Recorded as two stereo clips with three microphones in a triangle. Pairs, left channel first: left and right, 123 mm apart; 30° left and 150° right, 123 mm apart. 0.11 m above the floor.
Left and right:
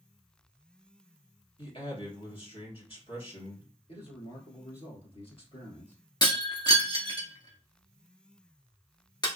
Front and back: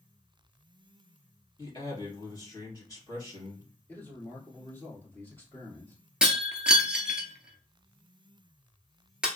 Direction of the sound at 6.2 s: 130° left.